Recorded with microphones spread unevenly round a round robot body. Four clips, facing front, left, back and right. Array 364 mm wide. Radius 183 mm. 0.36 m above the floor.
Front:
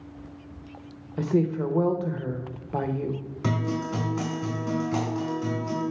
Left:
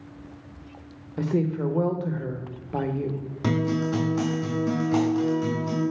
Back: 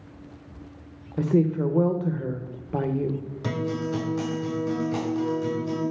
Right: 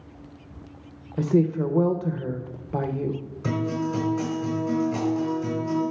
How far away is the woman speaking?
About 0.9 m.